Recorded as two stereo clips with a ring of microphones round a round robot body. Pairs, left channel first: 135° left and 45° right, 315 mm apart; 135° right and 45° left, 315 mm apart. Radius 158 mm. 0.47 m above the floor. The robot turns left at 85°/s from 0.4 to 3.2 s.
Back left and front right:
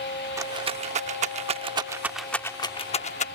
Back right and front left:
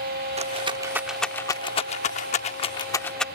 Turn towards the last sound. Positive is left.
turn(degrees=140)